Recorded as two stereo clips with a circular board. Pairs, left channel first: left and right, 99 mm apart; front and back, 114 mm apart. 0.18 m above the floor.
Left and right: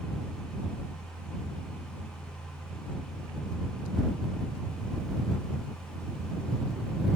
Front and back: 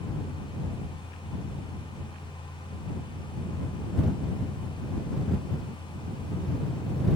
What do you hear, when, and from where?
Only background noise.